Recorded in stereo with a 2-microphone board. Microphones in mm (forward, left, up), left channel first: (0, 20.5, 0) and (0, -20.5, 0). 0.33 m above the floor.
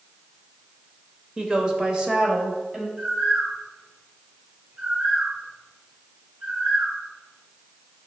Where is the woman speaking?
20° right (ahead or behind), 0.9 m.